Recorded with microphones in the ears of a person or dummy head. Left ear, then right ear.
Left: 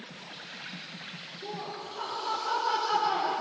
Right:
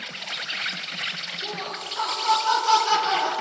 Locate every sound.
0.0 s an insect: 45° right (ahead or behind), 1.5 m
1.4 s laughter: 40° right (ahead or behind), 3.5 m